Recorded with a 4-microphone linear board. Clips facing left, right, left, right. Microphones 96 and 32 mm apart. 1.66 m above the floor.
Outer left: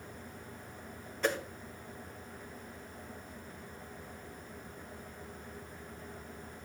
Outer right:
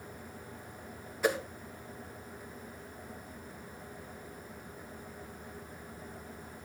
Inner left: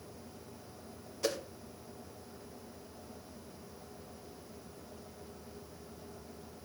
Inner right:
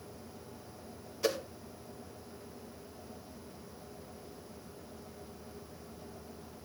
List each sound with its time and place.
1.2 s a whoosh: 10° right (ahead or behind), 1.4 m